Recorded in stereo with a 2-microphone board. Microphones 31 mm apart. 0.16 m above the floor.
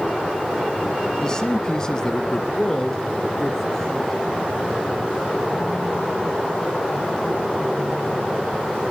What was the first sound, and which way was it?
A man speaking, 20° left (ahead or behind).